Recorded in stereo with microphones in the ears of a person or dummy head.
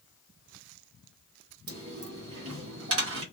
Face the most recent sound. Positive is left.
turn(degrees=-65)  # may be behind; listen again after turning